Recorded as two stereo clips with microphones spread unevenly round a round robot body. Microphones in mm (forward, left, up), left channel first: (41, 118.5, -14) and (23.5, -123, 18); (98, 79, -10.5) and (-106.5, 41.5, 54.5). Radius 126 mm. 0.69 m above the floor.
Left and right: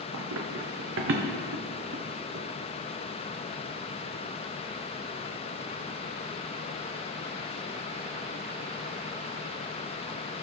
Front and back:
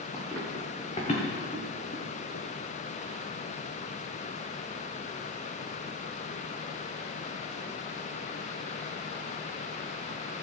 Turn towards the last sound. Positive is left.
turn(degrees=-35)